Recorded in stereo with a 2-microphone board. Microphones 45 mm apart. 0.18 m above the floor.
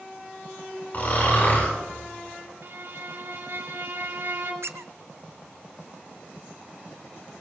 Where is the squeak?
75° right (ahead or behind), 0.6 m.